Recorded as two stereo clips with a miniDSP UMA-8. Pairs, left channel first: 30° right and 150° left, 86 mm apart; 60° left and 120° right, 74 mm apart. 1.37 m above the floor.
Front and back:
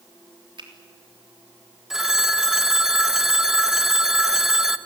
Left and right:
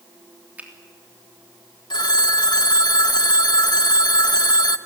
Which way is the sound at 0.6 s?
170° left.